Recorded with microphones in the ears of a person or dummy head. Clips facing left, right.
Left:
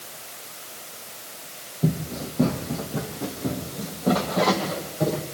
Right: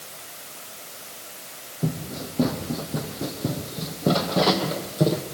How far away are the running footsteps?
About 5 m.